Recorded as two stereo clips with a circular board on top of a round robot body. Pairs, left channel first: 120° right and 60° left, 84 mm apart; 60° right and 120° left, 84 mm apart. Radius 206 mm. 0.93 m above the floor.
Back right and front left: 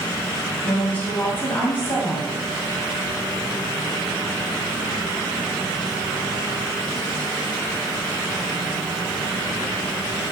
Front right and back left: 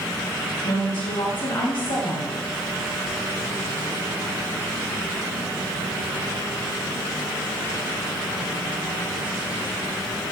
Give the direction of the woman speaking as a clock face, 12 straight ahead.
2 o'clock.